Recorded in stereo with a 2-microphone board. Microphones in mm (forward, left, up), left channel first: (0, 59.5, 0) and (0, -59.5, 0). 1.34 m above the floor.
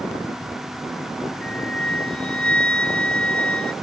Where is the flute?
10° left (ahead or behind).